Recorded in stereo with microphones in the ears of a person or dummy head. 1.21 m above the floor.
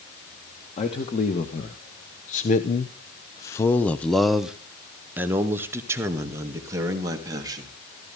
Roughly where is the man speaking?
Left.